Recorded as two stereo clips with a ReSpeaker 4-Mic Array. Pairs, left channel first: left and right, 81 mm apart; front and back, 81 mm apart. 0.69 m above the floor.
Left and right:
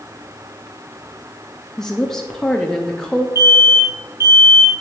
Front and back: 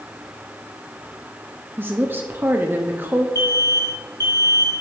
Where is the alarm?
40° right, 3 m.